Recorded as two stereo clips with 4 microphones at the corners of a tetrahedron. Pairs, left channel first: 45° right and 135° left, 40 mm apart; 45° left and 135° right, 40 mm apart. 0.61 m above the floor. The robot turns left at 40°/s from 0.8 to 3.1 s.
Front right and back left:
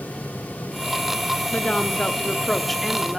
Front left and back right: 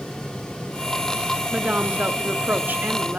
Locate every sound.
1.5 s a woman speaking: 85° right, 1.3 m; by 3.2 s 150° right, 1.3 m